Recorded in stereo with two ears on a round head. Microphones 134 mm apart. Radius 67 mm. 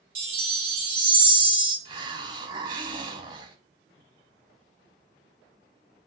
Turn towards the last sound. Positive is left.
turn(degrees=-30)  # may be behind; listen again after turning